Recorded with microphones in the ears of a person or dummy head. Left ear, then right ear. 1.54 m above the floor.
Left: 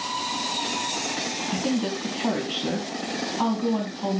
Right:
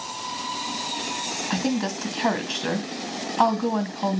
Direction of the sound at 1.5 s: 55° right (ahead or behind).